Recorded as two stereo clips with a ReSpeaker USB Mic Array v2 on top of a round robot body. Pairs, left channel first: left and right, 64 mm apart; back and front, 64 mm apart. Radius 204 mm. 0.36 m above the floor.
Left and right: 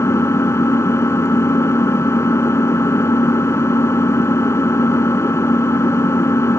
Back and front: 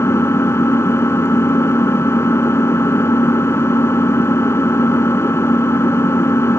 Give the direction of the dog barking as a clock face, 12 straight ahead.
I don't hear a dog barking.